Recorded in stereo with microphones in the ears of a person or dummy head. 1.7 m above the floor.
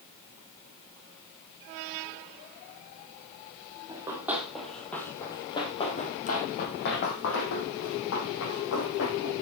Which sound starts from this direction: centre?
Running footsteps, at 3.9 s.